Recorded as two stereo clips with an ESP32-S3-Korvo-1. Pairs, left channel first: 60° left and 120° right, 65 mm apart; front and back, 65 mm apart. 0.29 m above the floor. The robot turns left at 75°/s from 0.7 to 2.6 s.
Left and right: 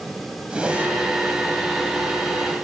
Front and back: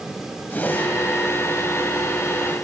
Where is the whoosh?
50° right, 1.3 m; by 0.9 s 70° right, 1.3 m.